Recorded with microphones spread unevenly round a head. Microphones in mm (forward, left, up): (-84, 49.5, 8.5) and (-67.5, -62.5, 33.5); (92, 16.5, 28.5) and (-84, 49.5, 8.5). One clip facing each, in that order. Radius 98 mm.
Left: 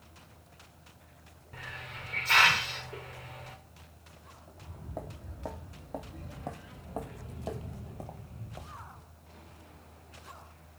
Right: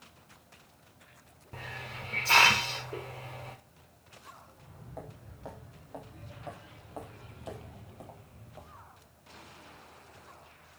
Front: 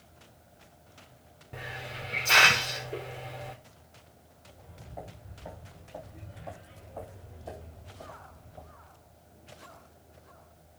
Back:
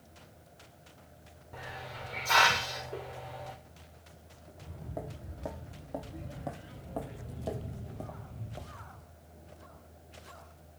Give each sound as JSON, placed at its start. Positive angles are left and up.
{"t": 1.5, "sound": "a hiss", "azimuth_deg": -55, "distance_m": 1.1}
{"t": 4.5, "sound": "footsteps", "azimuth_deg": 150, "distance_m": 4.5}